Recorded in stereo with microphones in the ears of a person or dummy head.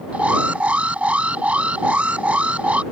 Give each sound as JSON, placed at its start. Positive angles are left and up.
{"t": 0.1, "sound": "an alarm", "side_deg": -5}